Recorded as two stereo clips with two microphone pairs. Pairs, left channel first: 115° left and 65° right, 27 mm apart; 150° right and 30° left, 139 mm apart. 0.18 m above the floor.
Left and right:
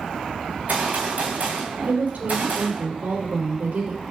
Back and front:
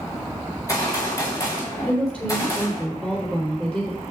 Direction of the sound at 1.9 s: 70° right.